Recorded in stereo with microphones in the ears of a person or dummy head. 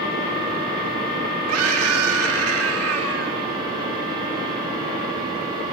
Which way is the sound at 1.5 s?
85° right.